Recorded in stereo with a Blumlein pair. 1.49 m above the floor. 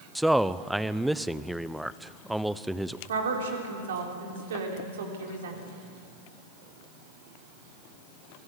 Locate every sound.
0.1 s a man speaking: 5° right, 0.6 m
3.1 s a woman speaking: 60° right, 3.5 m